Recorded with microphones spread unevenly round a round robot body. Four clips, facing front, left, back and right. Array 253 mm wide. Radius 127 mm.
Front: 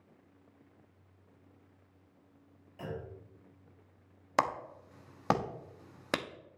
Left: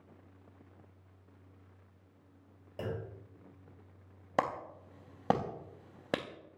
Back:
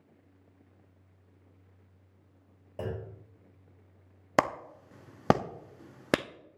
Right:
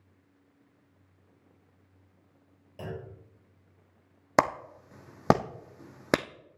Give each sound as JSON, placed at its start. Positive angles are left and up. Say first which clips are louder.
{"t": 2.8, "sound": "a clunk", "louder": "even, back 4 dB", "azimuth_deg": 160, "distance_m": 4.5}
{"t": 4.4, "sound": "a clap", "louder": "right 7 dB, back 3 dB", "azimuth_deg": -125, "distance_m": 0.9}